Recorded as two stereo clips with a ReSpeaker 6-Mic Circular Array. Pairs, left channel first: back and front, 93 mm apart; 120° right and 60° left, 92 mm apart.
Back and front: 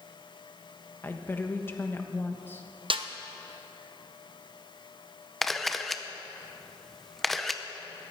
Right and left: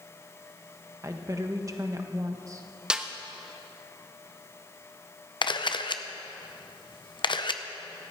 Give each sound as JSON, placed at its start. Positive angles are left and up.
{"t": 1.0, "sound": "a woman speaking", "azimuth_deg": 115, "distance_m": 1.3}
{"t": 2.9, "sound": "a snare drum", "azimuth_deg": -20, "distance_m": 0.8}
{"t": 5.4, "sound": "a camera shutter", "azimuth_deg": -90, "distance_m": 0.7}